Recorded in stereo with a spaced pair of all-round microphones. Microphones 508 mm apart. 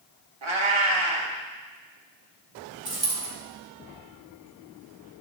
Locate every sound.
0.4 s a cat meowing: 70° right (ahead or behind), 1.1 m
2.9 s a dropped coin: 60° right (ahead or behind), 2 m